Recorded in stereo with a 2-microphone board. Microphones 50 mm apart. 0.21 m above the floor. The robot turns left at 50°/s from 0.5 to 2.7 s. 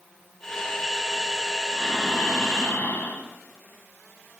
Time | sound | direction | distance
1.7 | breathing | 160° left | 1.6 m